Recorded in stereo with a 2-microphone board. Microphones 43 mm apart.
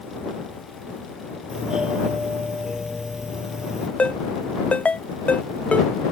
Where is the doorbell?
15° right (ahead or behind).